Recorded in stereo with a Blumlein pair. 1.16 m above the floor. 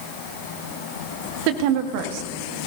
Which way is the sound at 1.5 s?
45° right.